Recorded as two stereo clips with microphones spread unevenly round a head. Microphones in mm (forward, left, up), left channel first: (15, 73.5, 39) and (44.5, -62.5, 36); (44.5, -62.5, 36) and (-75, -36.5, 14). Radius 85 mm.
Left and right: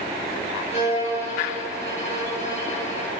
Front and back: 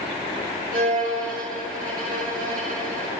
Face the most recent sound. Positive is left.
turn(degrees=150)